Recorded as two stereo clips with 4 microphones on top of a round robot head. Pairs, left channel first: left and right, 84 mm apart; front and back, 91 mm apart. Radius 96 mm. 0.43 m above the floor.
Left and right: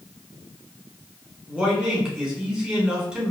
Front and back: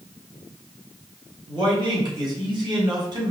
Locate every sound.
1.5 s a man speaking: 170° right, 2 m